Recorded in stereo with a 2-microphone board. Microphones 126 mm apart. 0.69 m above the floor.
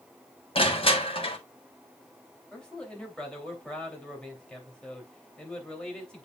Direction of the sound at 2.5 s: 5° left (ahead or behind).